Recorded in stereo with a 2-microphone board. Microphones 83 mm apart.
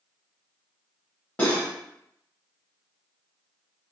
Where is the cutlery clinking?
20° left (ahead or behind), 1.2 m.